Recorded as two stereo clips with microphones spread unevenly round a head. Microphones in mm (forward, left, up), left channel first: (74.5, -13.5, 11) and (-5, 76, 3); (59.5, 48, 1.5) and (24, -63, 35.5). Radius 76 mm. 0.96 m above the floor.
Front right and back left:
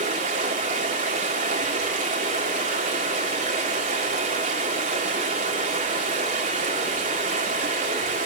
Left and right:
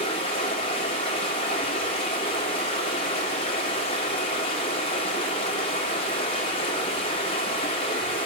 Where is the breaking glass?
I don't hear breaking glass.